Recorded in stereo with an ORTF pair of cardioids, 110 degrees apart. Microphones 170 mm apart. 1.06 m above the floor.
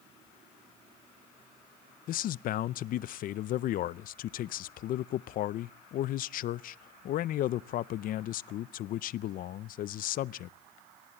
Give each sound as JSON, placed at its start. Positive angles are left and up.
{"t": 2.1, "sound": "a man speaking", "azimuth_deg": 60, "distance_m": 0.5}